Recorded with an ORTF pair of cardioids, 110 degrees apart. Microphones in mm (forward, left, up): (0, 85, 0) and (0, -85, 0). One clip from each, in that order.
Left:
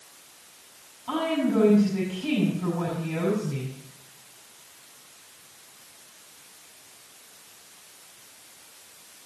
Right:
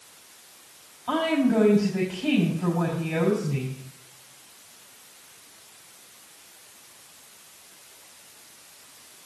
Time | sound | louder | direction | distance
1.1 | a woman speaking | right 2 dB | 30° right | 6 m